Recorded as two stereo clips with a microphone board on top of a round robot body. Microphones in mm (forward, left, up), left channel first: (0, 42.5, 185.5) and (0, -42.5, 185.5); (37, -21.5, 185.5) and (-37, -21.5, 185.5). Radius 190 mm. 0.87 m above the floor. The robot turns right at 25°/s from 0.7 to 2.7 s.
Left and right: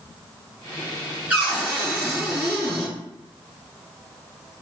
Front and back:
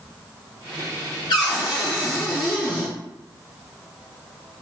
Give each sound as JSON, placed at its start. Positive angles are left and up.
{"t": 1.3, "sound": "a cupboard door", "azimuth_deg": -20, "distance_m": 0.7}